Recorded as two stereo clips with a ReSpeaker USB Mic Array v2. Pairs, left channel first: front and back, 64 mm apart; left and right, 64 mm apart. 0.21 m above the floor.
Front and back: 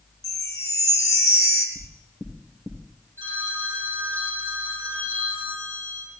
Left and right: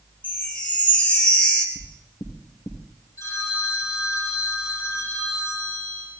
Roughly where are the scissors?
No scissors in this recording.